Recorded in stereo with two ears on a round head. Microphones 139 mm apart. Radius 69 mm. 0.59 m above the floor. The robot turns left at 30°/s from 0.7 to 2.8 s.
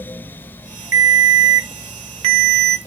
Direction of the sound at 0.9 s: 100° right.